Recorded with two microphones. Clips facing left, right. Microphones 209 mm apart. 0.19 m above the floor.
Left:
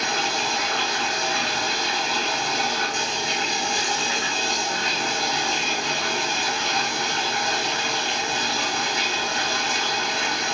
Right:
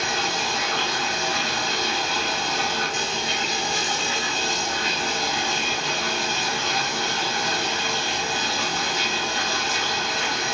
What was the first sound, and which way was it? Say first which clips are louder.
Running water: even; 20° right (ahead or behind).